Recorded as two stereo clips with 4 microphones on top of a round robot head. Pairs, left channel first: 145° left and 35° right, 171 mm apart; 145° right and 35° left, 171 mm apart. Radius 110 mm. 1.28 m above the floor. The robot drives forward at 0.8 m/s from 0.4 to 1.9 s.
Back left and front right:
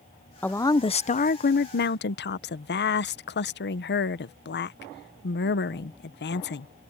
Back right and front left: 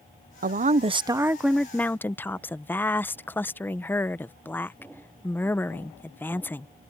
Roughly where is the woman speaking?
Ahead left.